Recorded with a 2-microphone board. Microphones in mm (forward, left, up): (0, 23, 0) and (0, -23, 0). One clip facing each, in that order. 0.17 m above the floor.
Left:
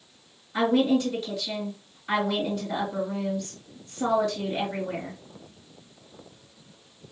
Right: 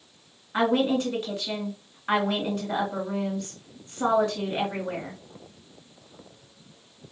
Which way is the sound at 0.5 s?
40° right (ahead or behind).